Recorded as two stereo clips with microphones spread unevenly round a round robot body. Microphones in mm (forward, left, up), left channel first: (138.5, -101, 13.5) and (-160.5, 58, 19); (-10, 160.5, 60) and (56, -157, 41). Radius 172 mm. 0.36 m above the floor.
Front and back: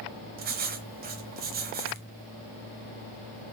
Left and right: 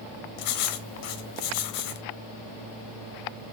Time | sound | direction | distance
0.4 | writing | 90° left | 1.5 m